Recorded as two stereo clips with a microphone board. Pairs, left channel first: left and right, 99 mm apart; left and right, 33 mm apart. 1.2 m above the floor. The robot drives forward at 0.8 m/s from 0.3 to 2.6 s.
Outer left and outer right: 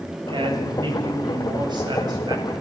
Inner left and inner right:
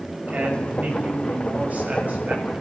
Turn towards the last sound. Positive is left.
turn(degrees=-45)  # may be behind; listen again after turning